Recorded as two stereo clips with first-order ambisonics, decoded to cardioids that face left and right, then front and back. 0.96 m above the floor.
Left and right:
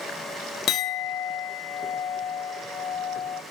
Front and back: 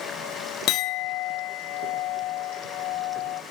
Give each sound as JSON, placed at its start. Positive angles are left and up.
{"t": 0.7, "sound": "a clink", "azimuth_deg": 35, "distance_m": 0.6}